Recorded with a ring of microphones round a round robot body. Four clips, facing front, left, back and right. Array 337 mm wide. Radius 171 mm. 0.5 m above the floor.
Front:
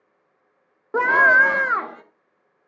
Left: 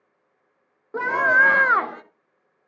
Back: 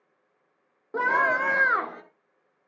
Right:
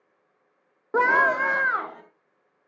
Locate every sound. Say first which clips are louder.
0.9 s a scream: left 1 dB, front 7 dB; 45° right, 0.9 m; by 2.0 s 95° left, 1.3 m